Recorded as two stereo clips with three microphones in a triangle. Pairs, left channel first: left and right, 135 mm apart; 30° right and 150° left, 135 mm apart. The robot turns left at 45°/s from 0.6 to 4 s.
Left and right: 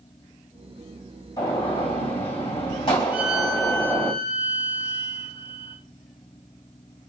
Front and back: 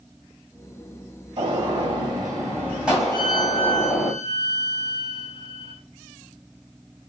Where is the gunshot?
140° left, 2 m; by 4.1 s 20° left, 2 m.